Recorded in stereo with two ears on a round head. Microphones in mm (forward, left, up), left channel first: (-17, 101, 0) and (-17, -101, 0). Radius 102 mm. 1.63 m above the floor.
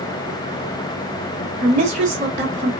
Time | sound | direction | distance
1.6 | a woman speaking | 30° right (ahead or behind) | 2 m